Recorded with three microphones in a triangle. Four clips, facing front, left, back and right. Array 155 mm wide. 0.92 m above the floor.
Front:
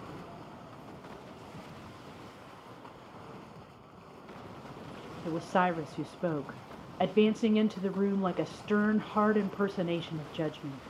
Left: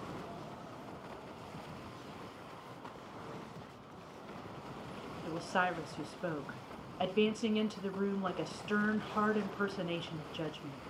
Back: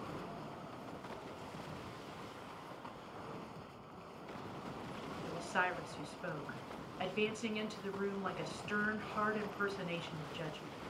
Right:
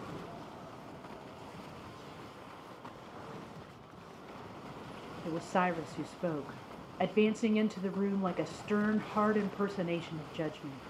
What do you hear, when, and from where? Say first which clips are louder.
5.2 s a woman speaking: right 2 dB, front 9 dB; 20° right, 1.0 m